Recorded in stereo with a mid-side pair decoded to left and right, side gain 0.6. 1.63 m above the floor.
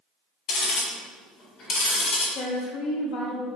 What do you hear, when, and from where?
0.5 s ticking: 50° left, 1.9 m
2.4 s a woman speaking: 60° left, 1.3 m